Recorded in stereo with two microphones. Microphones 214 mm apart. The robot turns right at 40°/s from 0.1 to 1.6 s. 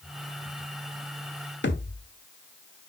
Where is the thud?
60° left (ahead or behind), 1.3 m.